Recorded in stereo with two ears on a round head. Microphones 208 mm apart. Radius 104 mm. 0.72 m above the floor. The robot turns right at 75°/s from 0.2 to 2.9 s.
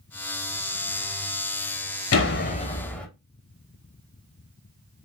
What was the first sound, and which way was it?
A door slam, 115° left.